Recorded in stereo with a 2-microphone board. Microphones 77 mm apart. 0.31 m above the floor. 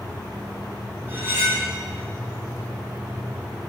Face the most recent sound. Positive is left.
turn(degrees=-30)  # may be behind; listen again after turning